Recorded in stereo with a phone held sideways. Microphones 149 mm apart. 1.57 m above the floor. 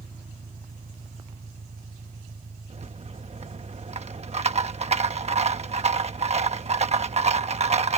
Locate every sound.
0.0 s an engine running: 90° right
2.7 s a rattle: 45° right (ahead or behind)